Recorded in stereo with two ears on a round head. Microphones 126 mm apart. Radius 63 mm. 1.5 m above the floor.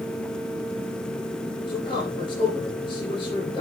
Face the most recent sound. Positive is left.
turn(degrees=40)  # may be behind; listen again after turning